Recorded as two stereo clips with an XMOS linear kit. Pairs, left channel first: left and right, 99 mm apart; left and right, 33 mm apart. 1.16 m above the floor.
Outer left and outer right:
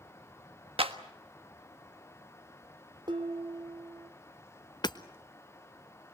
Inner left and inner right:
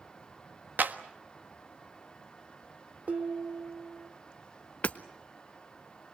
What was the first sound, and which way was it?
A clap, 70° right (ahead or behind).